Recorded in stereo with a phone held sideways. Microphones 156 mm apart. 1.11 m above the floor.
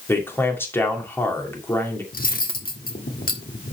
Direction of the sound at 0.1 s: 15° left (ahead or behind).